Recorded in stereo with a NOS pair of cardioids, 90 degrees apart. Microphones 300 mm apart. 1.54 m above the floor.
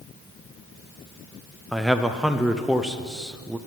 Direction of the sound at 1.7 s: Straight ahead.